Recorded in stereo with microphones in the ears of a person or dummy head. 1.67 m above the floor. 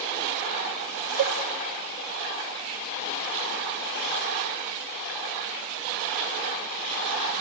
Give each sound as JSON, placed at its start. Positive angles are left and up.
{"t": 1.2, "sound": "a cowbell", "side_deg": -60, "distance_m": 0.9}